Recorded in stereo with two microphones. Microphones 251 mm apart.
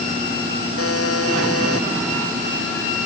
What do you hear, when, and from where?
0.8 s a buzzer: 60° left (ahead or behind)